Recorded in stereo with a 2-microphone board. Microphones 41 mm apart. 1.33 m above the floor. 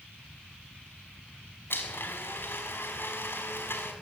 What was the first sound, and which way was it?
A blender, 65° left (ahead or behind).